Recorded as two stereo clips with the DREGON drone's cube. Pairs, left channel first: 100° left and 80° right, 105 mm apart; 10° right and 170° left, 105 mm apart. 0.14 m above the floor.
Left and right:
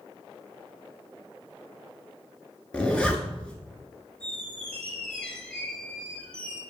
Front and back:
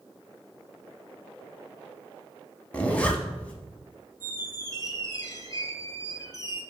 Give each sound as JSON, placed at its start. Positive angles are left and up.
{"t": 2.7, "sound": "a zipper", "azimuth_deg": 40, "distance_m": 0.6}
{"t": 4.2, "sound": "a squeak", "azimuth_deg": 25, "distance_m": 0.6}